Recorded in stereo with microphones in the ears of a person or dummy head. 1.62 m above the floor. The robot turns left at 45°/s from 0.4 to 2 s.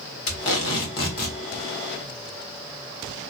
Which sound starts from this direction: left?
Tape being pulled, at 0.3 s.